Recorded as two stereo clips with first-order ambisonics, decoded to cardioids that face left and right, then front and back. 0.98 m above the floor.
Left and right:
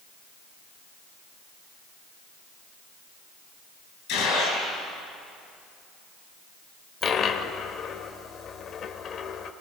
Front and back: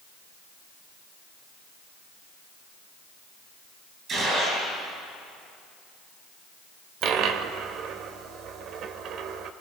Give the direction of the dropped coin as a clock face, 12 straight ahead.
7 o'clock.